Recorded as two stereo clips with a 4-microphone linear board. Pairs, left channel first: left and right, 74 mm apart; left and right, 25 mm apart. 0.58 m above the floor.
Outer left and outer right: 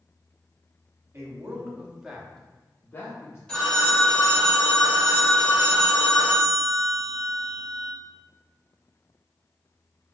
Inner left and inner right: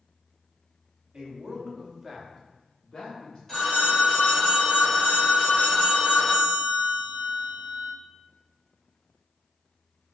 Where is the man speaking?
40° right (ahead or behind), 1.0 m; by 3.4 s 45° left (ahead or behind), 0.9 m.